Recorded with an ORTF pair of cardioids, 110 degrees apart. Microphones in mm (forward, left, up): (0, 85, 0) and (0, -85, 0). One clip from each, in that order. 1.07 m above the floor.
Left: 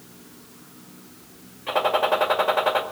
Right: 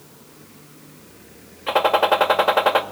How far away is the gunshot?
About 1.8 m.